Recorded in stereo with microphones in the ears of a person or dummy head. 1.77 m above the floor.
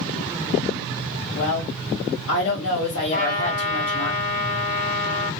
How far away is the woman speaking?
About 2 m.